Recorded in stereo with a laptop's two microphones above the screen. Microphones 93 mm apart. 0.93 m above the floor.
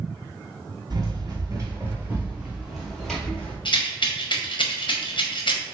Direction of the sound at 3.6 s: 60° left (ahead or behind).